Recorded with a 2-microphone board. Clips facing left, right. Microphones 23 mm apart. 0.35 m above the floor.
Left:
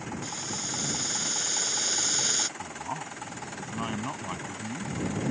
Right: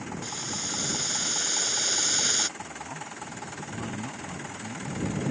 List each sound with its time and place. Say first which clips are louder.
0.2 s boiling: right 3 dB; 15° right (ahead or behind)
2.6 s a man speaking: left 2 dB; 45° left (ahead or behind)